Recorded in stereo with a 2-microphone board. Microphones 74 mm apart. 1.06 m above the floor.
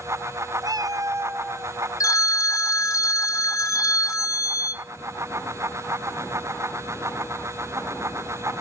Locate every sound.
0.6 s a cat meowing: 50° right (ahead or behind), 0.5 m; by 1.8 s 25° right (ahead or behind), 1.2 m
2.0 s a phone ringing: 45° left (ahead or behind), 0.9 m